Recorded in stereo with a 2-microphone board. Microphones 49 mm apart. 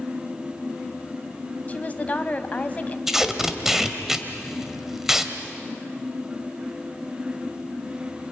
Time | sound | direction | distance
1.7 | a woman speaking | 30° left (ahead or behind) | 1.4 m
3.1 | tape being pulled | 10° right (ahead or behind) | 1.7 m